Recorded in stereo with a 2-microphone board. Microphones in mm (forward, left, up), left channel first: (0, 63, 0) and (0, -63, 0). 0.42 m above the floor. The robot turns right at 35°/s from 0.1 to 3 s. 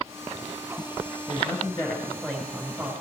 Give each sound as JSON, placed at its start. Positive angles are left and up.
{"t": 1.3, "sound": "a man speaking", "azimuth_deg": 135, "distance_m": 5.0}